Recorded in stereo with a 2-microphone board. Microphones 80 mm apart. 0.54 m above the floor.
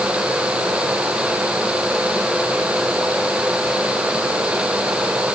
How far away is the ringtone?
No ringtone in this recording.